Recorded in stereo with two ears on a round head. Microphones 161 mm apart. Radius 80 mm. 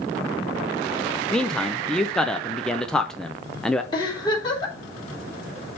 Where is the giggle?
25° left (ahead or behind), 2.5 m.